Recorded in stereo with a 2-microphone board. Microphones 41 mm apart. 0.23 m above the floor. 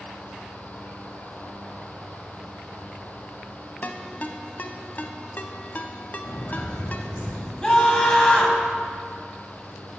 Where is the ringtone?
45° left (ahead or behind), 0.6 m.